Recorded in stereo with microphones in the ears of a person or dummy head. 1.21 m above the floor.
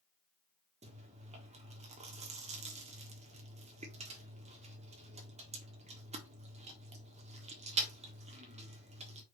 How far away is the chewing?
About 1.3 m.